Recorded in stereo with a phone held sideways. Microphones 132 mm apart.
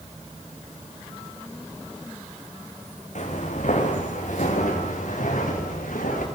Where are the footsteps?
65° left (ahead or behind), 5.5 m; by 6.2 s 85° left, 9.5 m.